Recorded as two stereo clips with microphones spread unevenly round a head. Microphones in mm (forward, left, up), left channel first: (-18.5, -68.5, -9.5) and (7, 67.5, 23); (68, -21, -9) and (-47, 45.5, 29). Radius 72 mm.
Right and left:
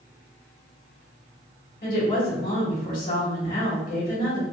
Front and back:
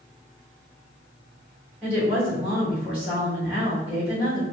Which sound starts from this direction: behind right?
A woman speaking, at 1.8 s.